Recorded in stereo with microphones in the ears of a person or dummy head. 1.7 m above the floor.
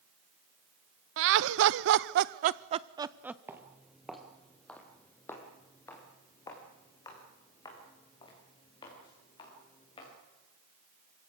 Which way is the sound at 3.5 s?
15° right (ahead or behind).